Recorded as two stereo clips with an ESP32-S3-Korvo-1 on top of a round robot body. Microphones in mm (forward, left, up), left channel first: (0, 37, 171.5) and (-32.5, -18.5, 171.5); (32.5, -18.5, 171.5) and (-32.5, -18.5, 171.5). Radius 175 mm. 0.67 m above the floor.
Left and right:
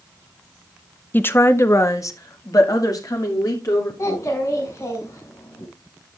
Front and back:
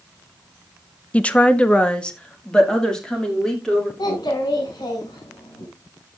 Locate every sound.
1.1 s a woman speaking: 50° left, 1.1 m; by 3.9 s 80° left, 2.5 m
4.0 s a child speaking: 20° left, 5.5 m